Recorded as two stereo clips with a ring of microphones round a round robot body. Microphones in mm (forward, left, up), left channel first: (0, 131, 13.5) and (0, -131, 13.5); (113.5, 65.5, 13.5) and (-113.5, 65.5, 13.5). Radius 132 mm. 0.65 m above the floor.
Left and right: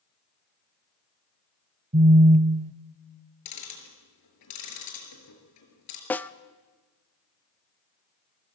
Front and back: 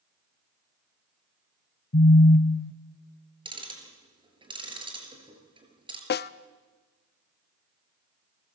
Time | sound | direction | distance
1.9 | a phone buzzing | 35° right | 0.6 m
3.5 | ticking | 110° left | 5 m
6.1 | a snare drum | 10° left | 0.6 m